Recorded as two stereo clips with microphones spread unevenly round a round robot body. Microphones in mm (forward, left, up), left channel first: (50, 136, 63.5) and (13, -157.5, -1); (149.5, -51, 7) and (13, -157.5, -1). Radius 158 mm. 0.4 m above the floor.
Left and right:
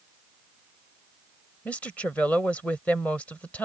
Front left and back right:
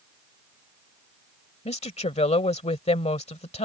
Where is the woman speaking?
10° right.